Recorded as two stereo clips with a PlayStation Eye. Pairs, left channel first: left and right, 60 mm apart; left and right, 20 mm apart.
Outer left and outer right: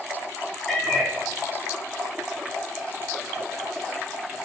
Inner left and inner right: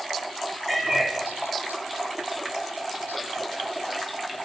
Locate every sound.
0.7 s a cat meowing: 5° left (ahead or behind), 5 m